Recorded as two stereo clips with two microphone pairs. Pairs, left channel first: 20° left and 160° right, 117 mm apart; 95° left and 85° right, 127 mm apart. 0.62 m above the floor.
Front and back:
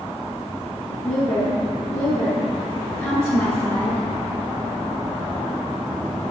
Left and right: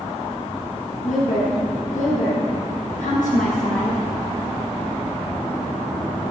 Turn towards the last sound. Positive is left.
turn(degrees=105)